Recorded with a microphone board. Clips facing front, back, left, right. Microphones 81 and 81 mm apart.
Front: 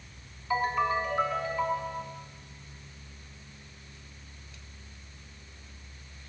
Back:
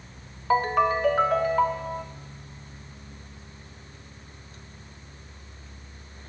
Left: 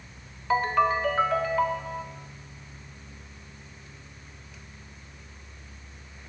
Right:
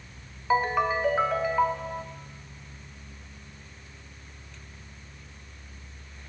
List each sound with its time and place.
0.5 s a ringtone: 170° right, 1.2 m